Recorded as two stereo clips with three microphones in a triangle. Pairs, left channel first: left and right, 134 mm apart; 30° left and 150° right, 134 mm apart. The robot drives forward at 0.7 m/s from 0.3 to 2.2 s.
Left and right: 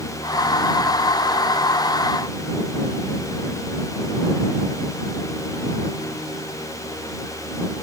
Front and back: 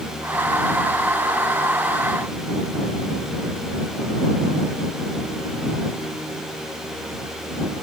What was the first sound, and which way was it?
Only background noise.